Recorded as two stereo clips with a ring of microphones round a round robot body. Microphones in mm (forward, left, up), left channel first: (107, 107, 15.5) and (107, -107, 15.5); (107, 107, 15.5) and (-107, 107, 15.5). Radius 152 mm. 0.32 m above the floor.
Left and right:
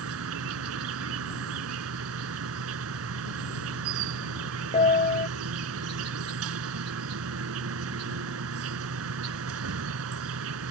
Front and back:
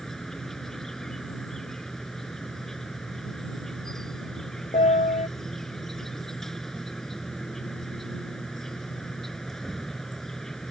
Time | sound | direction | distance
0.0 | an insect | 90° right | ?
4.7 | a piano | 50° left | ?